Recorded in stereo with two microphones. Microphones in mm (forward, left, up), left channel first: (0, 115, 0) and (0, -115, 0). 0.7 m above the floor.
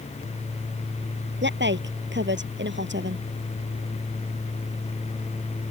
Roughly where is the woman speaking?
Right.